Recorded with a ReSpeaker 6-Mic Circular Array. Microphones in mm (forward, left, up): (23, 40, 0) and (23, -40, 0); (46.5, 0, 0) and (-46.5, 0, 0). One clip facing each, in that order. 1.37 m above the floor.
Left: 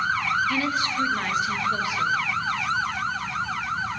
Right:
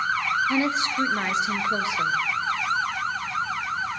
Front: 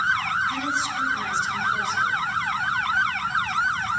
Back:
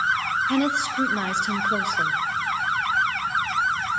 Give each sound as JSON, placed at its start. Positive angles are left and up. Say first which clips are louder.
{"t": 0.5, "sound": "a woman speaking", "louder": "right 1 dB, back 4 dB", "azimuth_deg": -155, "distance_m": 0.6}